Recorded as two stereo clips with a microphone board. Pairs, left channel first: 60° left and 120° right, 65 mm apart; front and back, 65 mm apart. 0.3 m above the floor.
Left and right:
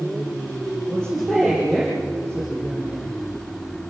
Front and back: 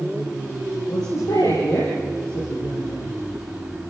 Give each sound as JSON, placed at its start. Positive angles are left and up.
{"t": 0.9, "sound": "a woman speaking", "azimuth_deg": -20, "distance_m": 6.5}